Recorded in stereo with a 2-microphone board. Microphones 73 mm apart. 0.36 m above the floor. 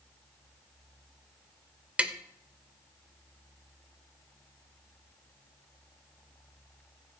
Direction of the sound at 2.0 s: 15° right (ahead or behind).